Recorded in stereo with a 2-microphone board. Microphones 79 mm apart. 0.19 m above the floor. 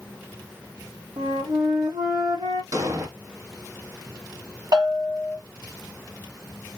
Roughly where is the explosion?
Right.